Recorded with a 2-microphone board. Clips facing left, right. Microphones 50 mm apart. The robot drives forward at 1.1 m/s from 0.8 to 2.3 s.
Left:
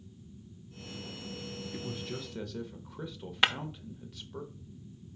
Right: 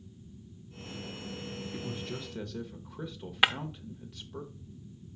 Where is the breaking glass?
10° right (ahead or behind), 0.7 m.